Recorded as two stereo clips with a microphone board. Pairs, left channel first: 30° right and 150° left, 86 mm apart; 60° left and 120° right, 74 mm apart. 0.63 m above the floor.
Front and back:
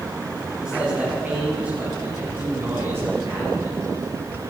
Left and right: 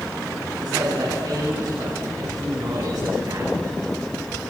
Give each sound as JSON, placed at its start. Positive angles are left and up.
{"t": 0.6, "sound": "a man speaking", "azimuth_deg": -130, "distance_m": 7.0}